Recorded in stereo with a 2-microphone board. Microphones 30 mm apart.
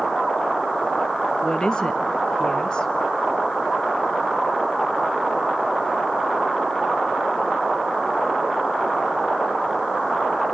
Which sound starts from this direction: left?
A woman speaking, at 1.4 s.